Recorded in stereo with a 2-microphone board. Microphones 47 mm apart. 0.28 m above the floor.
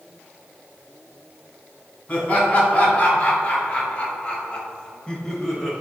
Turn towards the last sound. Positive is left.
turn(degrees=10)  # may be behind; listen again after turning